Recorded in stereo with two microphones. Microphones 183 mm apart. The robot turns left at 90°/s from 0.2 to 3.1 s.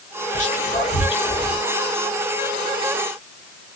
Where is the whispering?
40° left (ahead or behind), 1.3 m; by 1.6 s centre (ahead or behind), 1.3 m.